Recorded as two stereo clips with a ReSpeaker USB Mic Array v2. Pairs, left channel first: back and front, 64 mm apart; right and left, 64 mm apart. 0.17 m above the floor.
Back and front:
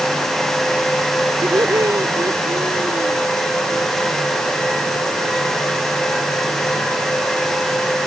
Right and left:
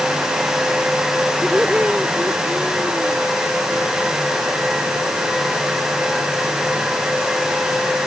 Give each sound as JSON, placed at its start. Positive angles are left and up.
{"t": 1.4, "sound": "laughter", "azimuth_deg": 15}